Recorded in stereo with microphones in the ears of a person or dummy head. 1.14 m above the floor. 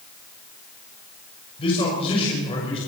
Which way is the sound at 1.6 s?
30° left (ahead or behind).